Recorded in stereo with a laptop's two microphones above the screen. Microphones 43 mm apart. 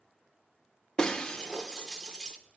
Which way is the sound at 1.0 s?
20° left (ahead or behind).